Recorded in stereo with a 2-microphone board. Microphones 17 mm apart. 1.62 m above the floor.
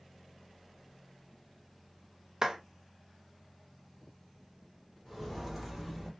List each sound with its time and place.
2.4 s a clap: 30° right (ahead or behind), 0.6 m
5.0 s footsteps: 5° right (ahead or behind), 2.0 m; by 6.1 s 10° right (ahead or behind), 1.7 m